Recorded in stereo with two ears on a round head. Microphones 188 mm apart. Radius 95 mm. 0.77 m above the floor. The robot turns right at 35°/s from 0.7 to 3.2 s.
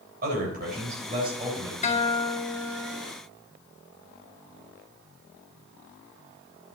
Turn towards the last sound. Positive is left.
turn(degrees=-165)